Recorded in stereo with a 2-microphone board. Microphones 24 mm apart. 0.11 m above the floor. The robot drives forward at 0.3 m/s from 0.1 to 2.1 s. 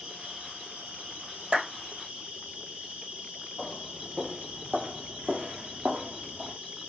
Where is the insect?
85° right, 1.4 m; by 6.9 s 60° right (ahead or behind), 1.6 m.